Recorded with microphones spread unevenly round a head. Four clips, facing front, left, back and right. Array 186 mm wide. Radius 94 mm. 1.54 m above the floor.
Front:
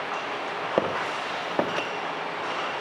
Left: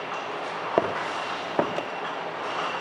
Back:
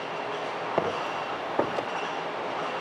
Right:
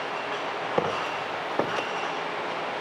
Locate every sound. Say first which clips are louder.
0.8 s footsteps: left 3 dB, front 2 dB; 50° left, 3.5 m; by 1.9 s 45° left, 2.5 m